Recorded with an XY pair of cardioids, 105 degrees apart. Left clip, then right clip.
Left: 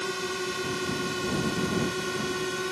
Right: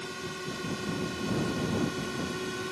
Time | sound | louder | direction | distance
0.0 | a drone | left 7 dB | 50° left | ?